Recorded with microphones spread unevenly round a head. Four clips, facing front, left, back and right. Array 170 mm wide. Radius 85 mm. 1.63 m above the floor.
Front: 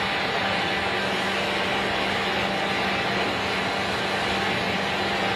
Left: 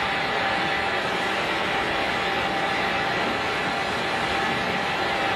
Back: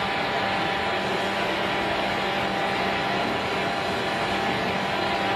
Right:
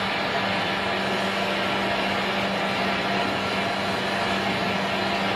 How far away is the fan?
About 1.1 m.